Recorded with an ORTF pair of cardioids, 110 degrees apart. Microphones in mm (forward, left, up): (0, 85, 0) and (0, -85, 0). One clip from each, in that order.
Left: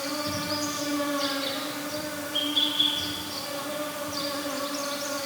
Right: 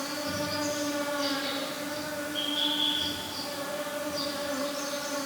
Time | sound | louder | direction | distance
0.0 | an insect | left 2 dB | 50° left | 6.5 m